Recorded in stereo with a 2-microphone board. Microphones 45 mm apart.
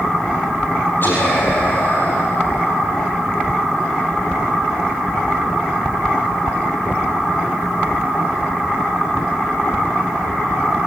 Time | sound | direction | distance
1.0 | whispering | 50° left (ahead or behind) | 4.5 m